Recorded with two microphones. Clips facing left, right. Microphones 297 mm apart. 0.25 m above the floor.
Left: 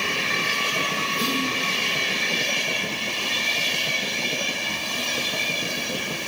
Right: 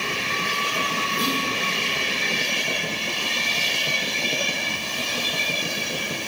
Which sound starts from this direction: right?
Whispering, at 1.2 s.